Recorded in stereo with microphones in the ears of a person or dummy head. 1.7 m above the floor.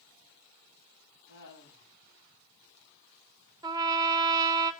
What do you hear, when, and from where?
1.3 s laughter: 65° left (ahead or behind), 10 m
3.6 s a trumpet: 20° right (ahead or behind), 0.8 m